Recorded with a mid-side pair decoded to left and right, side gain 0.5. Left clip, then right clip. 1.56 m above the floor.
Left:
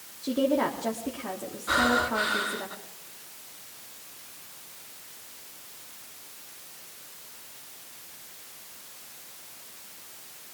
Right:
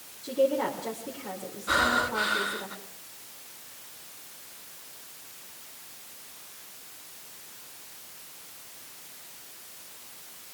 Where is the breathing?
Straight ahead, 4.5 m.